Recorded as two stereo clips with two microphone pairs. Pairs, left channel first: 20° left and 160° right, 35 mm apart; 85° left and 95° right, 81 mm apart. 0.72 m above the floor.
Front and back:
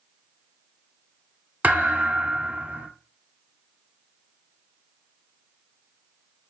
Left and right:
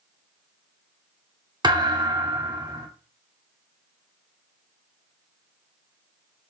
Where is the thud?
125° right, 0.7 m.